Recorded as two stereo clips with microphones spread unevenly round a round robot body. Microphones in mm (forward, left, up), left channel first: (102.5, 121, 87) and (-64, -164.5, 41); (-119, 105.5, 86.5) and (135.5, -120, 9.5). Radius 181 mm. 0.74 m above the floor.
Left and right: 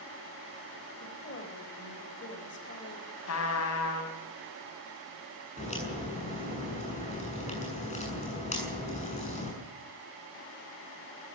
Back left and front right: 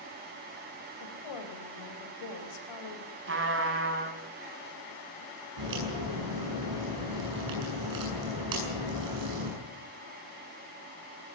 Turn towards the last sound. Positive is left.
turn(degrees=-10)